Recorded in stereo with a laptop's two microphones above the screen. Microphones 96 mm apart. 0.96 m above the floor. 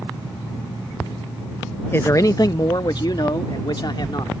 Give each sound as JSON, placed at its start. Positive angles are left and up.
{"t": 1.9, "sound": "a man speaking", "side_deg": 25}